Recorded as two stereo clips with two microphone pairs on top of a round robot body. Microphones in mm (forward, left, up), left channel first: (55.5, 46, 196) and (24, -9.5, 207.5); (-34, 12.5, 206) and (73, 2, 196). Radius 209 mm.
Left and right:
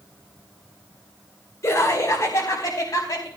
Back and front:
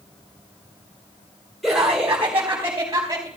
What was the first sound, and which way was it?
Laughter, 80° left.